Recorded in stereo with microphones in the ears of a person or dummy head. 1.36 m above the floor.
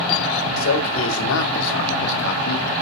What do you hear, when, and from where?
0.6 s a man speaking: 75° left (ahead or behind), 2.0 m; by 2.7 s 55° left (ahead or behind), 1.0 m